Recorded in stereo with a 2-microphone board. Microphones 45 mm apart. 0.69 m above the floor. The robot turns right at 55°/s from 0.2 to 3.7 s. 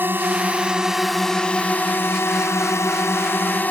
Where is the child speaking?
I don't hear a child speaking.